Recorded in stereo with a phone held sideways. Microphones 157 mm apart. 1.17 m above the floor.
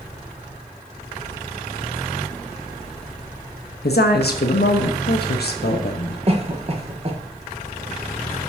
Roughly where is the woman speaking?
Left.